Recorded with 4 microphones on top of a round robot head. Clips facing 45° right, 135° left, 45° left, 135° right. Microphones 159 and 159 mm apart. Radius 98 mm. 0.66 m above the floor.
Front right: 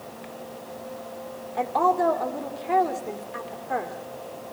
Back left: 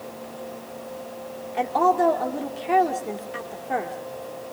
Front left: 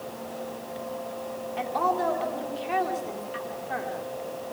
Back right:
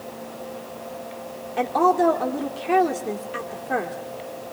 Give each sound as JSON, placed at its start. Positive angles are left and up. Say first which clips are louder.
{"t": 1.6, "sound": "a woman speaking", "louder": "back left 2 dB, back right 8 dB", "azimuth_deg": -160, "distance_m": 2.0}